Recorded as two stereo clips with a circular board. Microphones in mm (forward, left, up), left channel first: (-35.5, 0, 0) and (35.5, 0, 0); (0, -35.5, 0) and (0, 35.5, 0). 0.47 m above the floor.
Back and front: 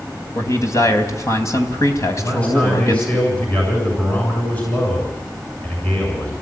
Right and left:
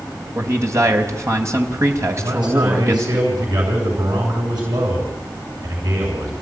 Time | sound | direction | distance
0.3 | a man speaking | 135° left | 3 m
2.2 | a man speaking | 110° left | 6.5 m